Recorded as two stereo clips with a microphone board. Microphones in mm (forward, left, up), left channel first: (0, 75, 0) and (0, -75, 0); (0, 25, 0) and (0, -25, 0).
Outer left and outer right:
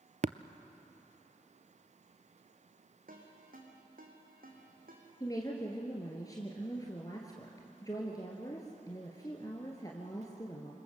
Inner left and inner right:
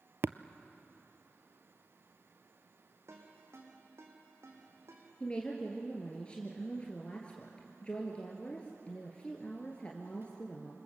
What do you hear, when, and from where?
0.2 s tapping: 55° right (ahead or behind), 0.6 m
3.1 s a ringtone: 75° right (ahead or behind), 4.5 m
5.2 s a woman speaking: 25° left (ahead or behind), 2.5 m